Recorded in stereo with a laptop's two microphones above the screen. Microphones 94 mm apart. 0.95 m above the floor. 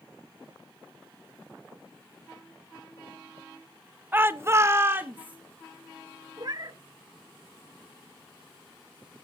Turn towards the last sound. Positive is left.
turn(degrees=-45)  # may be behind; listen again after turning